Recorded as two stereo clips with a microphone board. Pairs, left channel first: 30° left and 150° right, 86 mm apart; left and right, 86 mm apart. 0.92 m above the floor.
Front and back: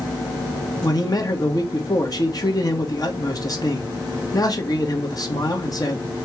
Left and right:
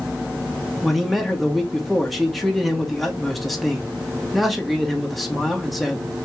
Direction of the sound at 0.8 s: Straight ahead.